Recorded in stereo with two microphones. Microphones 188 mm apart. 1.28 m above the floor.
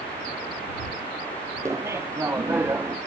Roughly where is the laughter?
Centre.